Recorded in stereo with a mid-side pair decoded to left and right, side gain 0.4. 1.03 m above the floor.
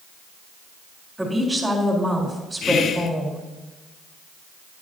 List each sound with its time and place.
1.2 s a woman speaking: 20° right, 3.5 m
2.6 s whispering: 65° left, 1.1 m